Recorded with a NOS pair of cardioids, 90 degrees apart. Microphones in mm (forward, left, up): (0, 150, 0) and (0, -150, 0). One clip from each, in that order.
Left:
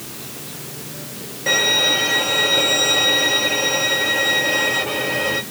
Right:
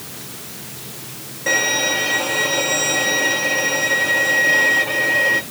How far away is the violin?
About 3.5 m.